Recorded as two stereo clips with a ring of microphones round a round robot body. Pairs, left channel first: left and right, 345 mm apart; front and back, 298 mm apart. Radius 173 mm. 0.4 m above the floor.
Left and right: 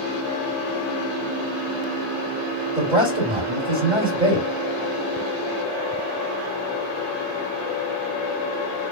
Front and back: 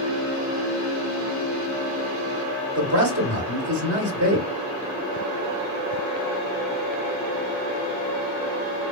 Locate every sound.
2.8 s a man speaking: 160° right, 1.6 m